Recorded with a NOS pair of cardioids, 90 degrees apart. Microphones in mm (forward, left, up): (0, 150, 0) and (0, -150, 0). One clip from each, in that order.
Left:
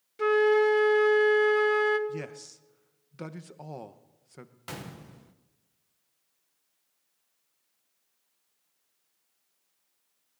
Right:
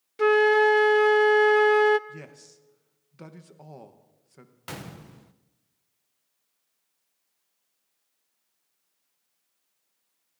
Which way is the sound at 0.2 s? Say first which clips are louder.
Right 4 dB; 25° right.